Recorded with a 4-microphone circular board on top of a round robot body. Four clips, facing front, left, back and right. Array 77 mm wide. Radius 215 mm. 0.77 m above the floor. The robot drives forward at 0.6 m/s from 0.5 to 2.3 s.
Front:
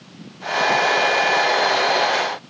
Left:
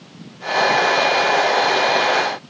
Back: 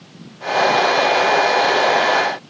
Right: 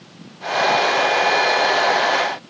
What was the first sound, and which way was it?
Only background noise.